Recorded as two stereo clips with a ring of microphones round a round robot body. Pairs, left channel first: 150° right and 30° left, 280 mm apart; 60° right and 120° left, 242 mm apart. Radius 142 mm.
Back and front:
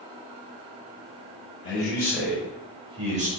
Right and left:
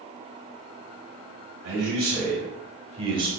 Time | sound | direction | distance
1.6 | a man speaking | 140° left | 1.3 m